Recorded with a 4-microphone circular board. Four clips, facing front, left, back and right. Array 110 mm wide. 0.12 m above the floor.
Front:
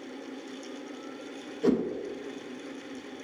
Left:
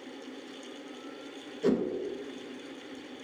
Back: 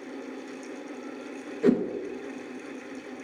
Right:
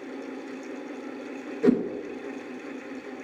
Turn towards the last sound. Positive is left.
turn(degrees=-130)